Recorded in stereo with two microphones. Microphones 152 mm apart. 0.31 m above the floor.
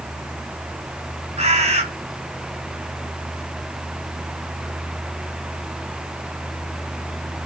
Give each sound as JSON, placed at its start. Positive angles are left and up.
{"t": 1.4, "sound": "a bird", "side_deg": -45, "distance_m": 1.9}